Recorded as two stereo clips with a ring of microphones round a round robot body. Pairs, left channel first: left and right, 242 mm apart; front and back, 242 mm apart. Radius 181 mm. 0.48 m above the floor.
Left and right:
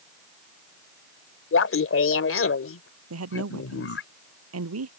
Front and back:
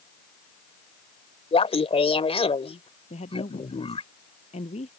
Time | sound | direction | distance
1.5 | laughter | 65° left | ?
3.1 | a woman speaking | 75° right | ?